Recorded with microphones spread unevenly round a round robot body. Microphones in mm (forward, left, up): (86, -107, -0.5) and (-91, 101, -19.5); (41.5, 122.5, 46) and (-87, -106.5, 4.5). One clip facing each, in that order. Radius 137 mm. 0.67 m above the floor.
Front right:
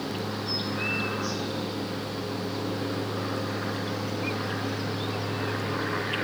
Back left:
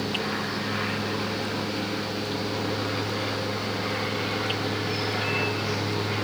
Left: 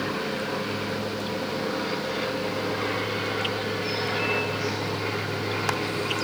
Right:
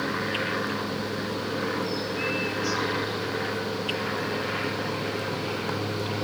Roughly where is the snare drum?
No snare drum in this recording.